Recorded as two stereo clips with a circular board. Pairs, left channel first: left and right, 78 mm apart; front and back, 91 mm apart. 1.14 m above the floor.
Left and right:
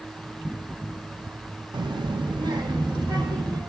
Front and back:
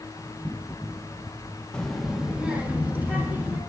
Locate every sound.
1.7 s a child speaking: 80° right, 0.6 m; by 3.6 s 115° right, 1.8 m